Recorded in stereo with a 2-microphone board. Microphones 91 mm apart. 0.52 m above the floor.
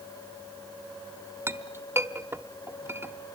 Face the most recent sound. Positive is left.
turn(degrees=-25)  # may be behind; listen again after turning